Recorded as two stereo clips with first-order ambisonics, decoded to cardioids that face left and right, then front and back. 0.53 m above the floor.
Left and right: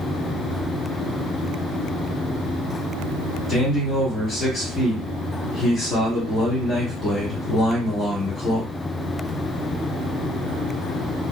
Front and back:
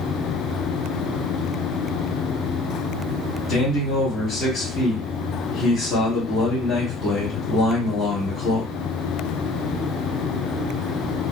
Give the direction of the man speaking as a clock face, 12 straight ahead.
11 o'clock.